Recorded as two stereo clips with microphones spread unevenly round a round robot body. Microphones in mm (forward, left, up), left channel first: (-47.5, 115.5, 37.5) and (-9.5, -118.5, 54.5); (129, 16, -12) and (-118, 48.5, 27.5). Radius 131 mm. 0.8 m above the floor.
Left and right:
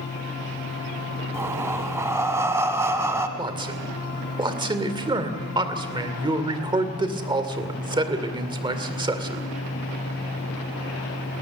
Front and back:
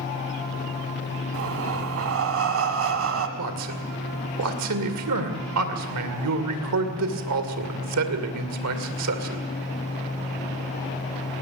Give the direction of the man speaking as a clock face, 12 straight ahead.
5 o'clock.